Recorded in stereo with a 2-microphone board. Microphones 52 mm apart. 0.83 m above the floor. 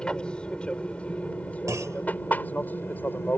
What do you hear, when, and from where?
0.0 s an aircraft: 15° left (ahead or behind); by 3.4 s 40° left (ahead or behind)
1.7 s a clunk: 80° right